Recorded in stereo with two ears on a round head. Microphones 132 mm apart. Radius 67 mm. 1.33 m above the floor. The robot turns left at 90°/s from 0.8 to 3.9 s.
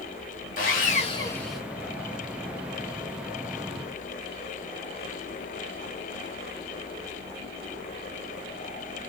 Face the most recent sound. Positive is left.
turn(degrees=145)